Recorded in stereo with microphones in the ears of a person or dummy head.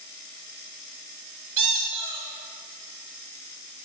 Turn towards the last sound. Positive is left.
turn(degrees=-40)  # may be behind; listen again after turning